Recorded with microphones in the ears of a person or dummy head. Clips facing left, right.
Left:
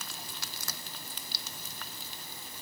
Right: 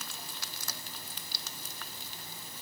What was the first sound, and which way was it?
Only background noise.